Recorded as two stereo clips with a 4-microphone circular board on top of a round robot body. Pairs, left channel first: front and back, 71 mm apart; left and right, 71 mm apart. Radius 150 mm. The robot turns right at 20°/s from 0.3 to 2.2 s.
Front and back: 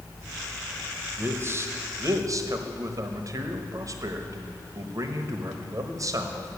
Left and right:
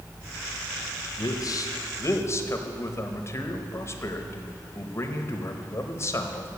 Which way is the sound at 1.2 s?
120° left.